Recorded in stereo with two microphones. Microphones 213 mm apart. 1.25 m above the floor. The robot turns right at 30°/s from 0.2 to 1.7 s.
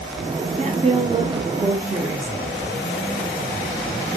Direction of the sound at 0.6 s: 55° right.